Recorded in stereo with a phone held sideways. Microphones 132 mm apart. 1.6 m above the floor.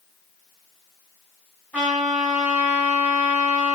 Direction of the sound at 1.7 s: 15° right (ahead or behind).